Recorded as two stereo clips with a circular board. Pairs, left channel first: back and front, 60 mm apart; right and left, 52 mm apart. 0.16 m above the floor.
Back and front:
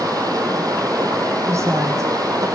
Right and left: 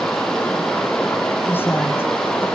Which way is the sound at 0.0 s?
10° right.